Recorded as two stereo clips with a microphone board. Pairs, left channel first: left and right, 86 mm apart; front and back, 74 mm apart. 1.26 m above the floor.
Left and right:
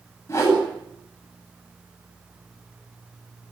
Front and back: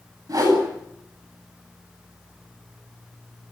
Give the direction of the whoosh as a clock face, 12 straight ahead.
7 o'clock.